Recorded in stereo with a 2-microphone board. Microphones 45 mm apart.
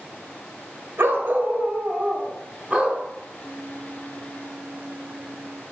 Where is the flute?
45° right (ahead or behind), 0.5 m.